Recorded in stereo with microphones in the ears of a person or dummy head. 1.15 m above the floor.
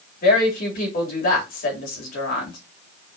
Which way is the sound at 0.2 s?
50° left (ahead or behind).